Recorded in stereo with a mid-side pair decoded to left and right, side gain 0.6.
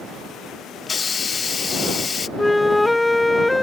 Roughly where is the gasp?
I don't hear a gasp.